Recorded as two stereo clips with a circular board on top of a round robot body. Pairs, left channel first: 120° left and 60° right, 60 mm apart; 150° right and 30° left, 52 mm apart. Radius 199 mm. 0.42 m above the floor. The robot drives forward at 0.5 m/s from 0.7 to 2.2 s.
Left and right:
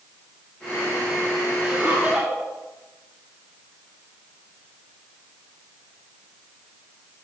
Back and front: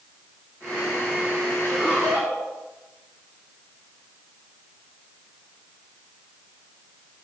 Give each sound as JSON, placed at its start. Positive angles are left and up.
{"t": 1.6, "sound": "laughter", "azimuth_deg": -125, "distance_m": 4.0}